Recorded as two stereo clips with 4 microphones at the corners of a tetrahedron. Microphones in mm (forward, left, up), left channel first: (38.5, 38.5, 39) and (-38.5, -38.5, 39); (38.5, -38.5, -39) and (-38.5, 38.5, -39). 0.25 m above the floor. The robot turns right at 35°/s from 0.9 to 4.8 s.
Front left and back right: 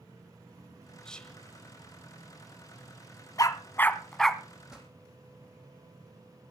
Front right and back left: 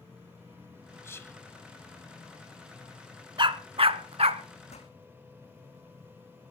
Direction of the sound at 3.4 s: 100° left.